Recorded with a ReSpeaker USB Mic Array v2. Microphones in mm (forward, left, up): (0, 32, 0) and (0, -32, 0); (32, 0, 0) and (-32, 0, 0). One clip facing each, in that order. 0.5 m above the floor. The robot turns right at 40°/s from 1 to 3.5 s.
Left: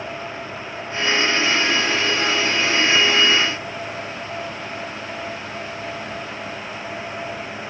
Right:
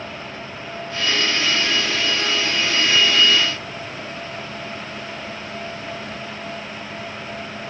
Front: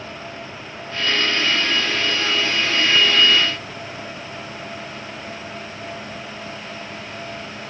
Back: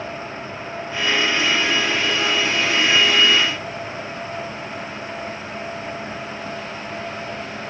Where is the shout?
No shout in this recording.